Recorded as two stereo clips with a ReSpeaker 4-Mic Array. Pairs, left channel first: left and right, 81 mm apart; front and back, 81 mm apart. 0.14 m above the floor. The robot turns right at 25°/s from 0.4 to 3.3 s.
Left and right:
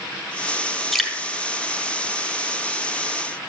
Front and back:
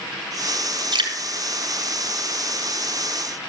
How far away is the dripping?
About 1.4 m.